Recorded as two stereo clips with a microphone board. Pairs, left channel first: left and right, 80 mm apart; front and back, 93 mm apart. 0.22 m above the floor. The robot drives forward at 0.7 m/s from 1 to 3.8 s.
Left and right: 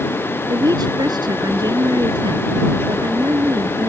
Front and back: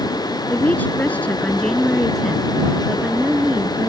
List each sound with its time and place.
0.5 s a woman speaking: 70° right; by 3.9 s 115° right